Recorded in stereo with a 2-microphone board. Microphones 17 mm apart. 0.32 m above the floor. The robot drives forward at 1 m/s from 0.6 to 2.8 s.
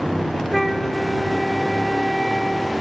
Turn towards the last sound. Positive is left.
turn(degrees=0)  # may be behind; listen again after turning